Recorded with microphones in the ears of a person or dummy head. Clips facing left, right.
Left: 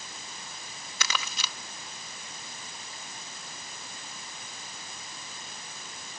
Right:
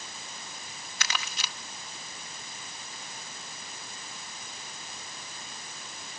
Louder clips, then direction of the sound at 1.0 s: Left 2 dB; 75° left (ahead or behind).